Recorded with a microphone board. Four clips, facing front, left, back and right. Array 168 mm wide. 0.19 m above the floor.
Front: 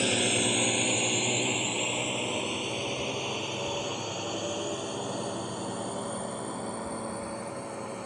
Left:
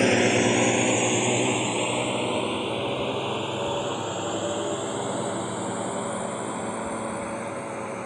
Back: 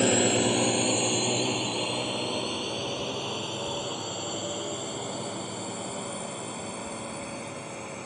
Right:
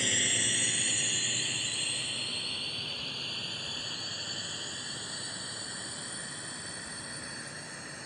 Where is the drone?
115° left; by 8.1 s 80° left.